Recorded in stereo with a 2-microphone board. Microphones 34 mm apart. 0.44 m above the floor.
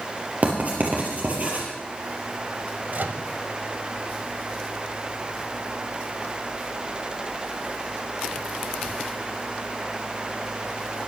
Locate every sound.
0.4 s writing: 50° right (ahead or behind), 5 m
2.9 s a microwave: 60° right (ahead or behind), 1.4 m